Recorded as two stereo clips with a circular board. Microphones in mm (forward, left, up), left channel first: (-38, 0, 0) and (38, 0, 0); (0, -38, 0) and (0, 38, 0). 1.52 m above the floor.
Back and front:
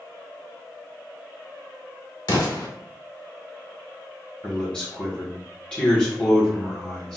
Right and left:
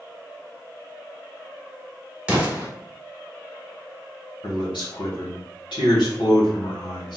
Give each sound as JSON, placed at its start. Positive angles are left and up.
{"t": 2.3, "sound": "an explosion", "azimuth_deg": 165, "distance_m": 1.2}
{"t": 4.4, "sound": "a man speaking", "azimuth_deg": -100, "distance_m": 1.5}